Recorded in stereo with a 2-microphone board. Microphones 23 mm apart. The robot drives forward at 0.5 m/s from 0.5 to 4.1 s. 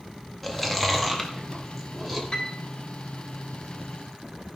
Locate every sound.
0.4 s chewing: centre (ahead or behind), 1.7 m
2.3 s a piano: 40° left (ahead or behind), 3 m